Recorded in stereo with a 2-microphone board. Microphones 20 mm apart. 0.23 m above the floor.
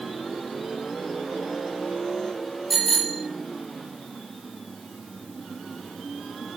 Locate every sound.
2.7 s a bicycle bell: 5° left (ahead or behind), 6 m